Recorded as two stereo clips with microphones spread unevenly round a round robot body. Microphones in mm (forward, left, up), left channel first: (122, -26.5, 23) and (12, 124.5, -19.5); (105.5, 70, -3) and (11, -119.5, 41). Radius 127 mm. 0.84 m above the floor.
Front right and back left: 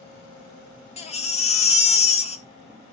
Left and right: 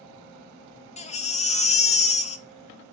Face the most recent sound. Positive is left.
turn(degrees=0)